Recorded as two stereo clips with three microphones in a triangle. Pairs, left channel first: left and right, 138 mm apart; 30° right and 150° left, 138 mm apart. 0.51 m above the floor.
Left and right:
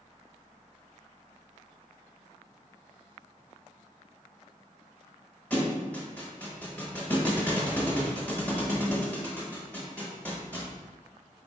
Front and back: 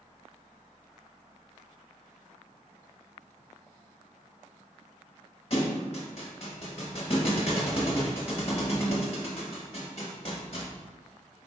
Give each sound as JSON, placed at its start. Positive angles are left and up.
{"t": 5.5, "sound": "a thud", "azimuth_deg": 10, "distance_m": 0.7}